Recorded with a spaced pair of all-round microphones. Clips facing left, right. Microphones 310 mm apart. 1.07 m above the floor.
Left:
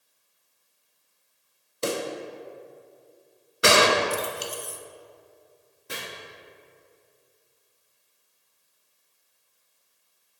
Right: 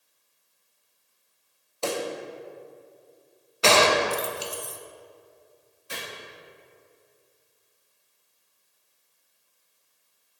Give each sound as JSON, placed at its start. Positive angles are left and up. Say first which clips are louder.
{"t": 1.8, "sound": "a pop", "louder": "left 1 dB", "side_deg": 20, "distance_m": 0.9}
{"t": 3.6, "sound": "a gunshot", "louder": "even", "side_deg": 20, "distance_m": 0.5}
{"t": 5.9, "sound": "chopping", "louder": "left 2 dB", "side_deg": 65, "distance_m": 3.0}